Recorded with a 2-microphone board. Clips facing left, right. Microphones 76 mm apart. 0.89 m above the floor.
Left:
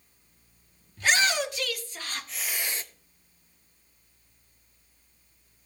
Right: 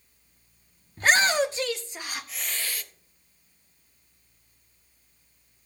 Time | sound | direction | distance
1.0 | a shout | 40° right (ahead or behind) | 1.6 m